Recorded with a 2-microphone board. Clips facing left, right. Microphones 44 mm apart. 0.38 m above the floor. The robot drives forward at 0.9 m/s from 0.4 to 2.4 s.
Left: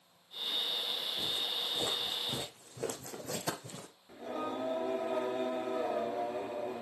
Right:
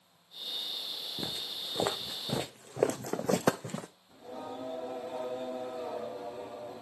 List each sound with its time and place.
1.2 s footsteps: 45° right (ahead or behind), 1.1 m; by 3.9 s 50° right (ahead or behind), 1.0 m
4.1 s singing: 60° left (ahead or behind), 1.7 m